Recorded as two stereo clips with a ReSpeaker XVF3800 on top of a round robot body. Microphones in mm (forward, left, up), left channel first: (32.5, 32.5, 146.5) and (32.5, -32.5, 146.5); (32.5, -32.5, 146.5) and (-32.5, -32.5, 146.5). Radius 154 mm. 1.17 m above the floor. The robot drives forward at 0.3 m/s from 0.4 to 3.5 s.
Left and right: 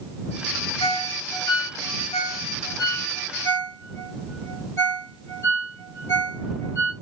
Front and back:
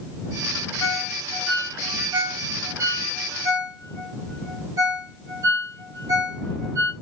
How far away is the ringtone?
About 0.6 m.